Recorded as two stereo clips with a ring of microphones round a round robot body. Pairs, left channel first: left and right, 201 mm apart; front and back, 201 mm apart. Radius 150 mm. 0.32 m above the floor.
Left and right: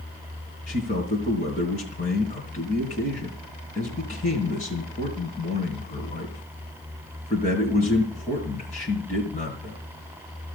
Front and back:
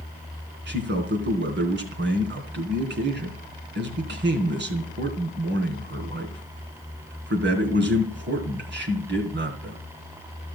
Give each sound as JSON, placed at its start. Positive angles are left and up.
{"t": 0.7, "sound": "a man speaking", "azimuth_deg": 150, "distance_m": 3.5}